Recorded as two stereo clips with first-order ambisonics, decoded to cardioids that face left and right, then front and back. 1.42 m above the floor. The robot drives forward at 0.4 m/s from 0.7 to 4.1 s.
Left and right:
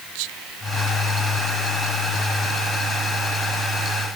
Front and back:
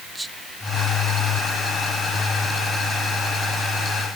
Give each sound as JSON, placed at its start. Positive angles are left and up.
{"t": 0.1, "sound": "whispering", "azimuth_deg": -100}